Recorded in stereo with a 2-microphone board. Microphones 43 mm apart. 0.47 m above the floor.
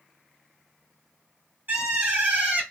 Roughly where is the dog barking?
I don't hear a dog barking.